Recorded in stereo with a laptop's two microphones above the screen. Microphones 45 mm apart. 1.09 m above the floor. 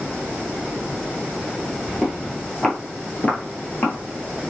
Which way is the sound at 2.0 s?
5° left (ahead or behind).